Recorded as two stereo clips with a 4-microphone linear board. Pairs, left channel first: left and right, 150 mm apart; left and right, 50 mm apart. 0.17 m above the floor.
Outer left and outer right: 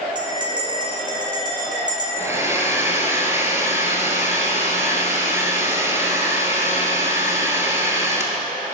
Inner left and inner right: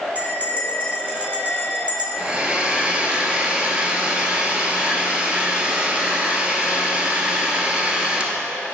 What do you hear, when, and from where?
0.1 s a bell: 30° right (ahead or behind), 1.8 m
2.2 s a hair dryer: 20° right (ahead or behind), 1.1 m